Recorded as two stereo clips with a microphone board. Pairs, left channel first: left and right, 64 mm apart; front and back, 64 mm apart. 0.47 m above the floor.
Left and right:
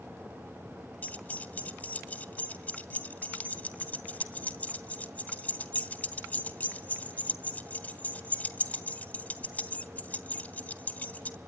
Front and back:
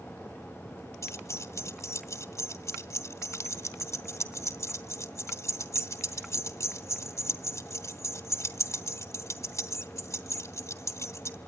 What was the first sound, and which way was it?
Keys jangling, 30° left.